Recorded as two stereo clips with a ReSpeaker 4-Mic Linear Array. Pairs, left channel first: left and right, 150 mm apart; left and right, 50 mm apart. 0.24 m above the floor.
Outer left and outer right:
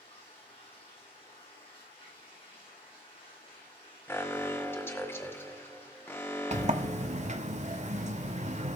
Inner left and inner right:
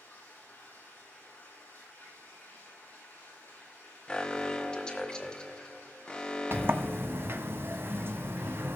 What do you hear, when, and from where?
0.0 s running water: 40° left (ahead or behind), 7.5 m
4.1 s an alarm: 15° left (ahead or behind), 1.5 m
6.5 s a sliding door: 50° right (ahead or behind), 1.0 m